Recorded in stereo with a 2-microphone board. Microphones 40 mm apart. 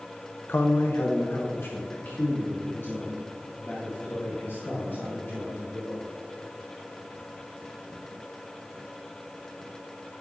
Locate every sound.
0.5 s a man speaking: 60° left (ahead or behind), 0.6 m; by 6.0 s 65° left (ahead or behind), 5 m